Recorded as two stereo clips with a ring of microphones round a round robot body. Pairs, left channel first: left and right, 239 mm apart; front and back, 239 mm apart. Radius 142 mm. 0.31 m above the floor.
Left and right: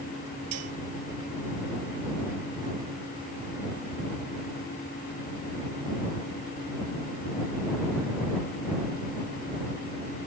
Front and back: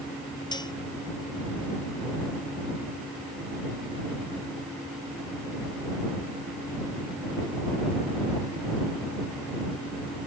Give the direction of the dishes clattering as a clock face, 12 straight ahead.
2 o'clock.